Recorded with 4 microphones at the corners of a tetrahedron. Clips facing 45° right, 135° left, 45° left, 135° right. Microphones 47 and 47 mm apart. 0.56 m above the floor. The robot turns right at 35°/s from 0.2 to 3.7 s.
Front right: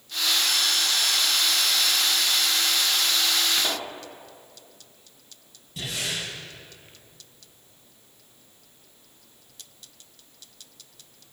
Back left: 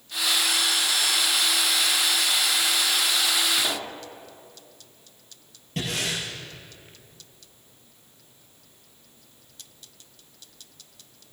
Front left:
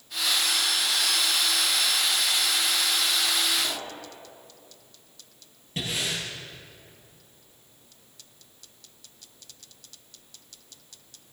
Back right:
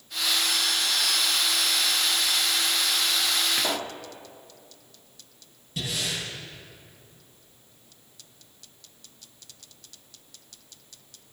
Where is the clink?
I don't hear a clink.